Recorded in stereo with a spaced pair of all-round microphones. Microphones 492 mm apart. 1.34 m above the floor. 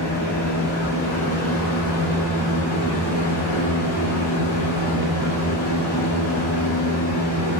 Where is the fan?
70° left (ahead or behind), 1.8 m.